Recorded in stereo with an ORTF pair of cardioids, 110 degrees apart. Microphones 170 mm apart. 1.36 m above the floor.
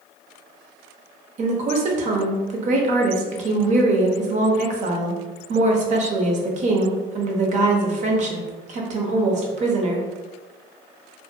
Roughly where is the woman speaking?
Ahead right.